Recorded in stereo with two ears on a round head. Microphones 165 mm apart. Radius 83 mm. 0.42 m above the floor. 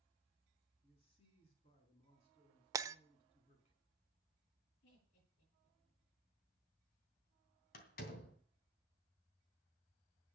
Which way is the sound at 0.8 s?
30° left (ahead or behind).